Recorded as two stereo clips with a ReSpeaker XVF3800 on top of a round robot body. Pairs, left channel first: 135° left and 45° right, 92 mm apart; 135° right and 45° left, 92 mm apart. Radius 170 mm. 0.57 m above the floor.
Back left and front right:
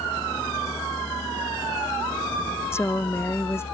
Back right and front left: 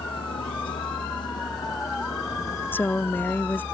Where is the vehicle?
160° right; by 3.8 s 150° left.